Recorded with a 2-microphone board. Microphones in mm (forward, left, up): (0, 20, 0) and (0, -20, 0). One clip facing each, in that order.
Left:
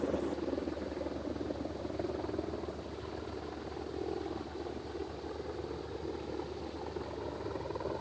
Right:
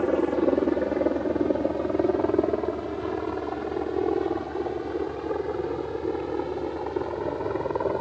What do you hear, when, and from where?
0.0 s a helicopter: 70° right (ahead or behind); by 8.0 s 45° right (ahead or behind)